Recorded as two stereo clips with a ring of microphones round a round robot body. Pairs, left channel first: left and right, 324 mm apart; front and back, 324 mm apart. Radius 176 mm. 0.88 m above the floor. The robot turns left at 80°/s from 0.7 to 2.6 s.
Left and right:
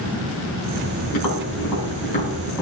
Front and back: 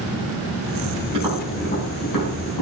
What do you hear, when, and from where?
1.1 s tapping: 110° left, 4.5 m; by 2.6 s 10° right, 4.5 m